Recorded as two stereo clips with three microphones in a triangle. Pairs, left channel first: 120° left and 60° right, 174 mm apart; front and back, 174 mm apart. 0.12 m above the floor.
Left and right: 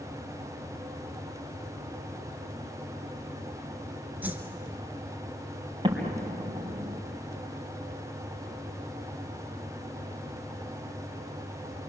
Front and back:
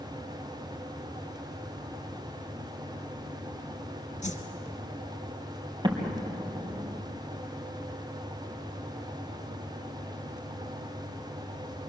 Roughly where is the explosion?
Behind right.